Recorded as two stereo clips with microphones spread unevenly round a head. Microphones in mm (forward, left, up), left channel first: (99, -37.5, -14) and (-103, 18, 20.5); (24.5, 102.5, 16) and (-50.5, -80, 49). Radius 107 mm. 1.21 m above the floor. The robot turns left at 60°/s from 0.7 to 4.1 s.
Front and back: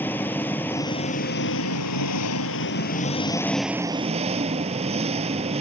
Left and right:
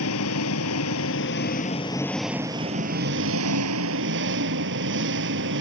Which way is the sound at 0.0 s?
65° left.